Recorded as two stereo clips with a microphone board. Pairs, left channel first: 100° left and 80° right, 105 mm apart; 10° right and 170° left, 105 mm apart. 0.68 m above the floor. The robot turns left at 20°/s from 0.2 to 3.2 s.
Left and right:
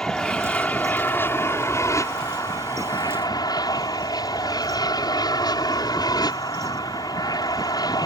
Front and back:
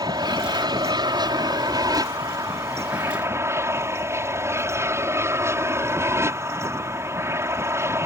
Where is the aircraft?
Straight behind; by 8.1 s 120° left.